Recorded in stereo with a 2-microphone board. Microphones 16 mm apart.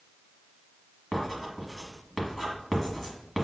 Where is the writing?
Centre (ahead or behind), 1.2 m.